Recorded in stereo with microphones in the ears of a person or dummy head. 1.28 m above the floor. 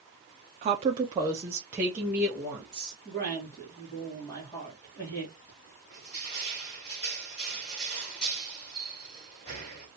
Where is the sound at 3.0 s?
15° left (ahead or behind), 1.9 m.